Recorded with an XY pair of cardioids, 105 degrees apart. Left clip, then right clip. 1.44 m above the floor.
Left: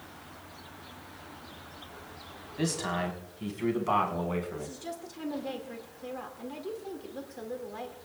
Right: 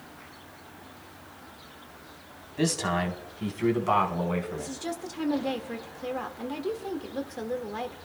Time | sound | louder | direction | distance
2.6 | a man speaking | right 4 dB | 25° right | 3.5 m
4.6 | a woman speaking | right 5 dB | 45° right | 2.0 m